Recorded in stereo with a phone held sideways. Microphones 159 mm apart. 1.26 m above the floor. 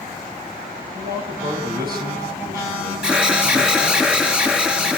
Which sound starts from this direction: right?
A man speaking, at 0.9 s.